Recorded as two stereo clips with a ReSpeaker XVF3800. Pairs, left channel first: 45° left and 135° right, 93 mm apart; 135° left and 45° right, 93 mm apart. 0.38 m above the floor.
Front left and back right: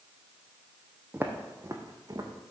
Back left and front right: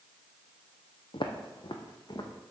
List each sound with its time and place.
1.1 s footsteps: 155° left, 1.2 m; by 2.3 s straight behind, 1.6 m